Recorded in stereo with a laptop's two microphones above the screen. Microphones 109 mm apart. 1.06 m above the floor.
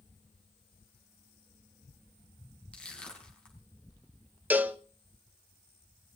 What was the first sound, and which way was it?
Crushing, 10° left (ahead or behind).